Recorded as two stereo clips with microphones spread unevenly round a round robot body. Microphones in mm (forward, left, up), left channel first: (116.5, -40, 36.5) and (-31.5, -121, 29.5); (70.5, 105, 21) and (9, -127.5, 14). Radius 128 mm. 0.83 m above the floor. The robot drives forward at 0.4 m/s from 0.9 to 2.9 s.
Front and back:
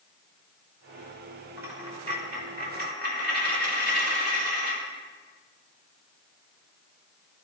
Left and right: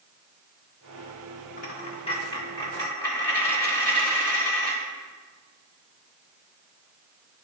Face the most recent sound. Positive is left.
turn(degrees=155)